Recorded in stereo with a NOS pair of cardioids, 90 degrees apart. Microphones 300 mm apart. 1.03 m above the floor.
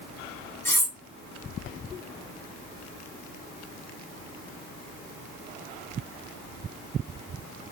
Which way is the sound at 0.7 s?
10° left.